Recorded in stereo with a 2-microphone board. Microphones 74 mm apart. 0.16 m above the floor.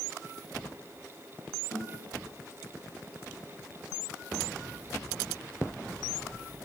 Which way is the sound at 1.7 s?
60° right (ahead or behind).